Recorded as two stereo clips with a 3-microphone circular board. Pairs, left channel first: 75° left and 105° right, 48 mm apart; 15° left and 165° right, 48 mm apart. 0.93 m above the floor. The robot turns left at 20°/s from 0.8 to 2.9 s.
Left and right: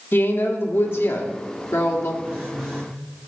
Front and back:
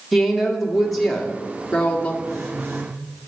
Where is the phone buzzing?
170° right, 4 m; by 2.9 s 175° left, 4 m.